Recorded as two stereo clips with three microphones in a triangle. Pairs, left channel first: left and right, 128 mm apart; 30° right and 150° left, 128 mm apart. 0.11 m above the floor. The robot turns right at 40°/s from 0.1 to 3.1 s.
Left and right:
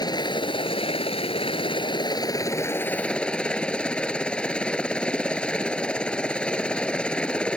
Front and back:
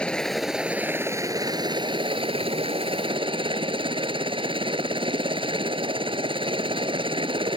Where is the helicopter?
50° left; by 7.6 s 170° left.